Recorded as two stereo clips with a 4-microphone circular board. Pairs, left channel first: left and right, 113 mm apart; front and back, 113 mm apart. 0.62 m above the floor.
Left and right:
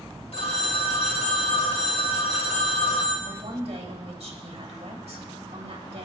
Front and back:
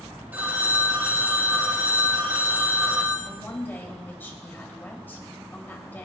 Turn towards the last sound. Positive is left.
turn(degrees=-75)